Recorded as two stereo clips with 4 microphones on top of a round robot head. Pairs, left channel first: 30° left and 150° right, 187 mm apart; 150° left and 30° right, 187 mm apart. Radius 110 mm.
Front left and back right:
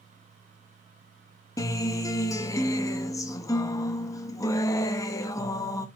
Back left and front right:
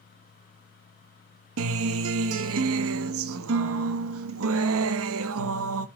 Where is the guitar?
40° right, 0.7 m.